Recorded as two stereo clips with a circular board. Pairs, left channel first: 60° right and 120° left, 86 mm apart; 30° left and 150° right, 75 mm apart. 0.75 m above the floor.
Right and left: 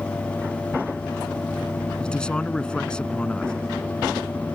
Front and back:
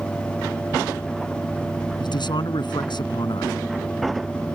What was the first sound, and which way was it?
A man speaking, 20° left.